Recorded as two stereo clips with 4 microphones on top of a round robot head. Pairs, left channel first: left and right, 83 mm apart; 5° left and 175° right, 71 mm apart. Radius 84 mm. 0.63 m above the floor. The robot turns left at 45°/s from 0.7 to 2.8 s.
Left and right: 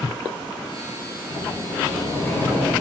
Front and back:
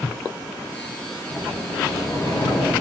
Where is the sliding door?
80° left, 1.6 m; by 2.7 s 15° left, 1.6 m.